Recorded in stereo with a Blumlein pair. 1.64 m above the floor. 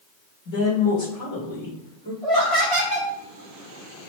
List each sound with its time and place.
0.5 s a woman speaking: 40° left, 1.9 m; by 2.1 s 70° left, 1.7 m
2.2 s laughter: 10° left, 1.2 m